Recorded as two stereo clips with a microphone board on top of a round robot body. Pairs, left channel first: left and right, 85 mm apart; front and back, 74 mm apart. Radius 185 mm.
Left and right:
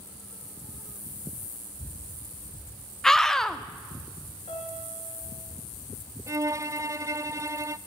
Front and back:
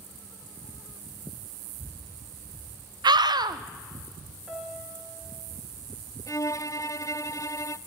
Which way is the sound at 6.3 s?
40° right.